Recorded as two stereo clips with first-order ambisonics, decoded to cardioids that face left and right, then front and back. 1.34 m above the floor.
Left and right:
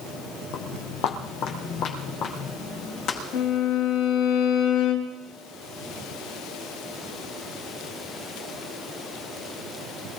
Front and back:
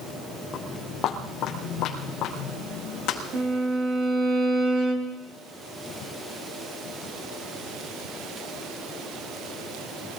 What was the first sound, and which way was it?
Footsteps, 60° left.